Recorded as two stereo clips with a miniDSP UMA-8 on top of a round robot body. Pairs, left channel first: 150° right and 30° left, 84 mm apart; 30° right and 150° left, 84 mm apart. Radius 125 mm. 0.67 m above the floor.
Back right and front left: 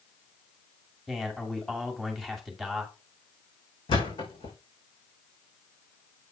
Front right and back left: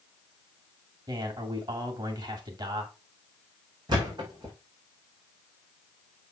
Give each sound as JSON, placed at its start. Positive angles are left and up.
{"t": 1.1, "sound": "a man speaking", "azimuth_deg": 125, "distance_m": 2.5}
{"t": 3.9, "sound": "a thud", "azimuth_deg": -170, "distance_m": 5.0}